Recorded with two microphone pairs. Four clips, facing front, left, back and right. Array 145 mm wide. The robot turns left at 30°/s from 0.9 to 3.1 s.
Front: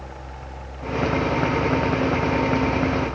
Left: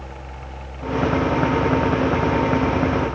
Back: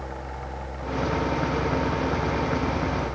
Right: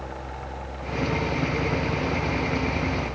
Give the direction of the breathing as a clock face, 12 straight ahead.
I don't hear breathing.